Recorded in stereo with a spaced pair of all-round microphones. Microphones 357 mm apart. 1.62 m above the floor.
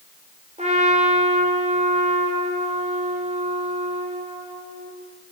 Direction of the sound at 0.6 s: 20° right (ahead or behind).